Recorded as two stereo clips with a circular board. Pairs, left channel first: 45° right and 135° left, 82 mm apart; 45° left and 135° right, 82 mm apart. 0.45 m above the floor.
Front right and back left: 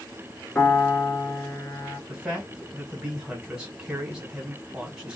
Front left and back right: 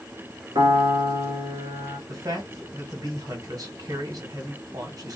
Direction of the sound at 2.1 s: 145° right.